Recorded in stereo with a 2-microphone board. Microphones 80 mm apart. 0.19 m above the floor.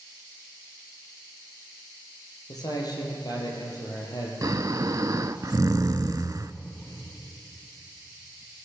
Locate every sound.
2.5 s a man speaking: 55° left (ahead or behind), 6 m
4.4 s snoring: 45° right (ahead or behind), 0.5 m